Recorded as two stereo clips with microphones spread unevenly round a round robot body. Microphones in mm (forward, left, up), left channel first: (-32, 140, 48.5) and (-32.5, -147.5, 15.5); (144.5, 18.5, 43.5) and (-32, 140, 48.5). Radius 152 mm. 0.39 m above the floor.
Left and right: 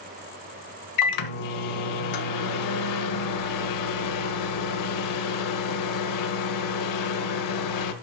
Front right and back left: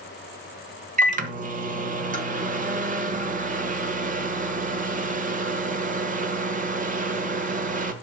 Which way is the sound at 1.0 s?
95° left.